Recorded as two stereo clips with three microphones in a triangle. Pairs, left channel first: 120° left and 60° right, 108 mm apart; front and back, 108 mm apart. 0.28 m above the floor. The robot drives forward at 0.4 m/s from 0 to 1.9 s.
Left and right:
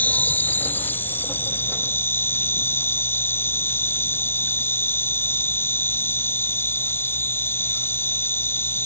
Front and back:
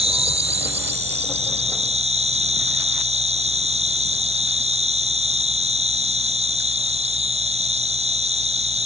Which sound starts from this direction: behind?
An insect, at 0.0 s.